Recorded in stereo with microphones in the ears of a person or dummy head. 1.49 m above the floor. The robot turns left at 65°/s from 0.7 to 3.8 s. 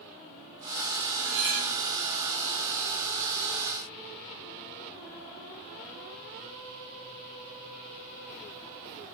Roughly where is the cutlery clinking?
Behind right.